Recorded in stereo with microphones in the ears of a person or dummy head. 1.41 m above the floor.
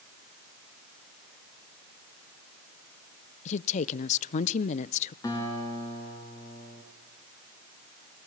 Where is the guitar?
25° left (ahead or behind), 5.5 m.